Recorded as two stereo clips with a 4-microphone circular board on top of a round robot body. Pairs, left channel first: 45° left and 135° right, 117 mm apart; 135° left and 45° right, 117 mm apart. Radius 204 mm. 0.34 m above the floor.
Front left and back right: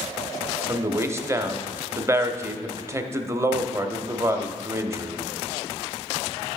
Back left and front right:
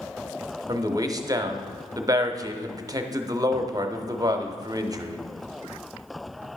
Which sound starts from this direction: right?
A man speaking, at 0.7 s.